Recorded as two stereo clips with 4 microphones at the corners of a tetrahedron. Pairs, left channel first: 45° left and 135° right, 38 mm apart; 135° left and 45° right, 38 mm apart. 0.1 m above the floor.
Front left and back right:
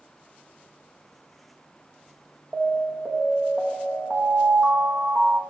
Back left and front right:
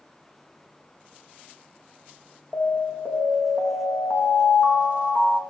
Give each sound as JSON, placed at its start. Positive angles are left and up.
{"t": 2.5, "sound": "an alarm", "azimuth_deg": 175, "distance_m": 5.5}